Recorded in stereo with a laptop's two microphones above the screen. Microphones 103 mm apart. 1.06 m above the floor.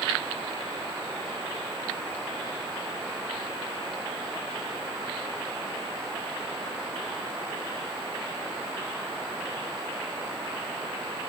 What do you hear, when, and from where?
Only background noise.